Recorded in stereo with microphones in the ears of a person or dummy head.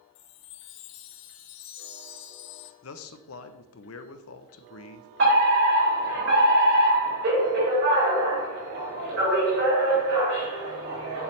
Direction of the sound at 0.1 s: 60° left (ahead or behind).